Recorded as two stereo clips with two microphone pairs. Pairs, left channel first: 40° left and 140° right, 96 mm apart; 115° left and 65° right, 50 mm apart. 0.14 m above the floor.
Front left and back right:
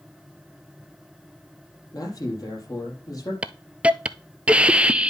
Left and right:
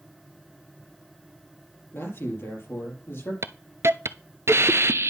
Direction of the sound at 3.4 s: 65° right.